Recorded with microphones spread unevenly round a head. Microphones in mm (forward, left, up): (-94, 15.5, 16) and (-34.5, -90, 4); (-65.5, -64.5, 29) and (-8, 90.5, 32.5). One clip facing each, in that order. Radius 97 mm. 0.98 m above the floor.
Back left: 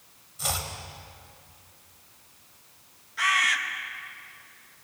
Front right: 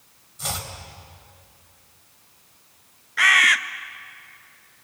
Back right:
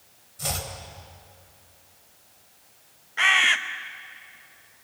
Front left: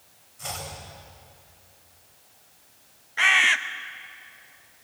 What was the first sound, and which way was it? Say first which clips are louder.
Chopping: even, back right 3 dB; 155° right.